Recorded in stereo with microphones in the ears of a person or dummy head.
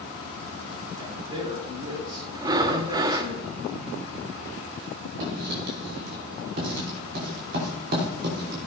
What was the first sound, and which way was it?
A man speaking, 15° right (ahead or behind).